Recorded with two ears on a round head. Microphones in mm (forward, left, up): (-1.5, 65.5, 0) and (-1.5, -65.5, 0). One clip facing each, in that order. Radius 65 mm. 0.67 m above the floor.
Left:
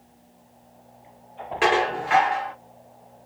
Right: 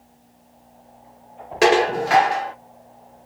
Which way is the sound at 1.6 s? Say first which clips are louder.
Right 5 dB; 50° right (ahead or behind).